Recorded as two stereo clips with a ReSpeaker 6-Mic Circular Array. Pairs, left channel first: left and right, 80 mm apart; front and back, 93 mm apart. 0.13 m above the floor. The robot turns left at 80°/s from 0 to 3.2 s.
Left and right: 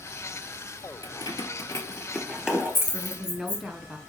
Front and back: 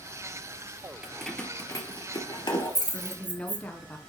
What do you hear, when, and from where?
1.0 s keys jangling: 105° left, 2 m; by 3.6 s 70° right, 2 m
2.9 s a woman speaking: 15° right, 1.3 m; by 4.0 s 35° right, 1.3 m